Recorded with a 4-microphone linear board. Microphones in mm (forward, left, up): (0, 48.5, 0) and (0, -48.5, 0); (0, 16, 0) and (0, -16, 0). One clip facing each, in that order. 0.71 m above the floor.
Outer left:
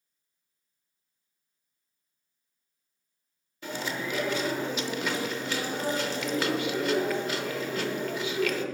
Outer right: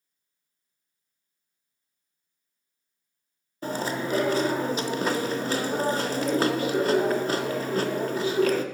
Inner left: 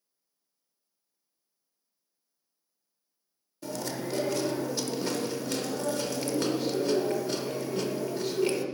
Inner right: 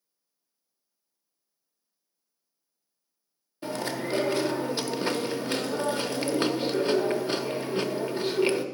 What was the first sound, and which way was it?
Chewing, 40° right (ahead or behind).